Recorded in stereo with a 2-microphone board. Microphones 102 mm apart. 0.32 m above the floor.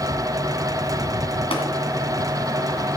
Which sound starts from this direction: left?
Tapping, at 1.5 s.